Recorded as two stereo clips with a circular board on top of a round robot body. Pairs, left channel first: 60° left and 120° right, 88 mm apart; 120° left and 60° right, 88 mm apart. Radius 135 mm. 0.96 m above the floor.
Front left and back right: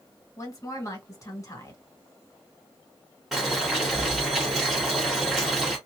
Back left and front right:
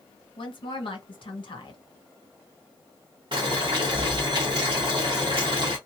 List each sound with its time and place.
0.4 s a woman speaking: 110° left, 1.7 m
3.3 s boiling: 35° right, 0.5 m